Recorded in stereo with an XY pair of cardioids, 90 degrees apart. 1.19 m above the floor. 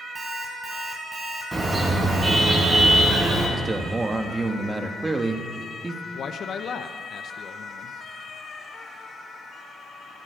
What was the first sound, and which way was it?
An alarm clock, 25° right.